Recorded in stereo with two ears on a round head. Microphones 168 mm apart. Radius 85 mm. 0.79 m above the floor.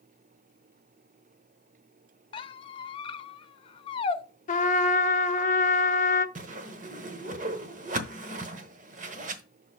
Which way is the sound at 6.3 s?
40° right (ahead or behind).